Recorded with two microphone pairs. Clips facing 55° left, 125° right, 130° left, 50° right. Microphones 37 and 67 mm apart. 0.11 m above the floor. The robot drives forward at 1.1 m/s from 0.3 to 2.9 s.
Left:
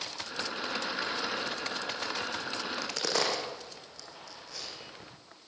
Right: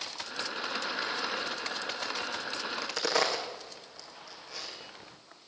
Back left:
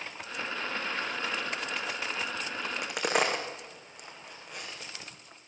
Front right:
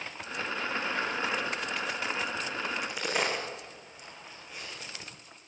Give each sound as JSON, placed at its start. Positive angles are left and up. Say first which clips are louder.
{"t": 2.6, "sound": "a crack", "louder": "right 1 dB, even", "azimuth_deg": 155, "distance_m": 5.0}